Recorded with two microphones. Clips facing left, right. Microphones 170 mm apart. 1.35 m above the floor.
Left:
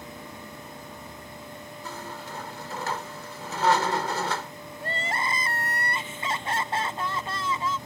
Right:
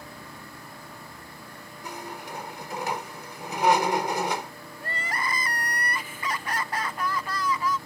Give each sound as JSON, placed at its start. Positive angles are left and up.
{"t": 1.8, "sound": "a squeak", "side_deg": -15}
{"t": 4.8, "sound": "crying", "side_deg": 25}